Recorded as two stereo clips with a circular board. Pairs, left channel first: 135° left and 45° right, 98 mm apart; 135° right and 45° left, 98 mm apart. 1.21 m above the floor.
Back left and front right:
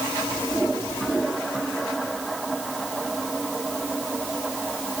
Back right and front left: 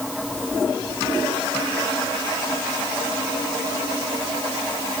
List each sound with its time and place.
Only background noise.